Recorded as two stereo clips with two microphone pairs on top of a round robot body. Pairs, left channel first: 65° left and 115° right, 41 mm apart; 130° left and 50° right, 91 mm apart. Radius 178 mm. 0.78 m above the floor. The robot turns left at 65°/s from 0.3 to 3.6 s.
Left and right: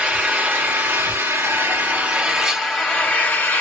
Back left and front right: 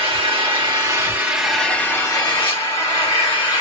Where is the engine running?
60° right, 1.5 m; by 3.6 s 85° left, 1.5 m.